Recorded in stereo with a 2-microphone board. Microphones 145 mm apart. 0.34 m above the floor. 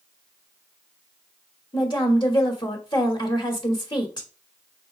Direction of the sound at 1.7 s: 35° left (ahead or behind).